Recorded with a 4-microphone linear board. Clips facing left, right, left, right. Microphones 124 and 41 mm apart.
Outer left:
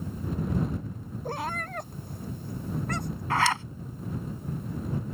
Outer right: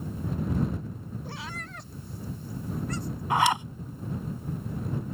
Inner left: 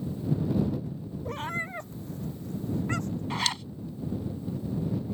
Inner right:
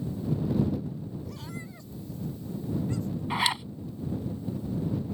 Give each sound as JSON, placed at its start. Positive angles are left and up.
{"t": 1.2, "sound": "a cat meowing", "side_deg": 45}
{"t": 3.3, "sound": "a zipper", "side_deg": -15}